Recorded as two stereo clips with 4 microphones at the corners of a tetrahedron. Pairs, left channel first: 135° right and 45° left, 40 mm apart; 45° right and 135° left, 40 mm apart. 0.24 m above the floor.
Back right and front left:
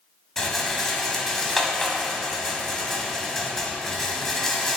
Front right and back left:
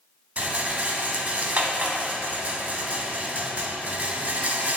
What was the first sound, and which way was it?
A rattle, 150° left.